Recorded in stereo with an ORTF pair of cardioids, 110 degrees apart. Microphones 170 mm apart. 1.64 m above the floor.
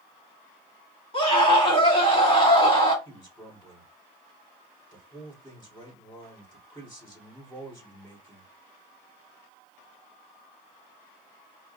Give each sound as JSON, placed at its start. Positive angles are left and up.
{"t": 1.1, "sound": "a scream", "azimuth_deg": 35, "distance_m": 2.5}
{"t": 3.0, "sound": "a man speaking", "azimuth_deg": 25, "distance_m": 2.5}